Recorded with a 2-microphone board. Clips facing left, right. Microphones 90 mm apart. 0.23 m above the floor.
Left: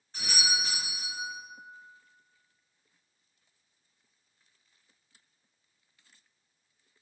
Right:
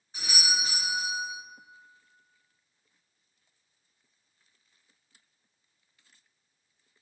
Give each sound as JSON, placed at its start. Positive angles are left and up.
{"t": 0.1, "sound": "a doorbell", "side_deg": -10, "distance_m": 1.5}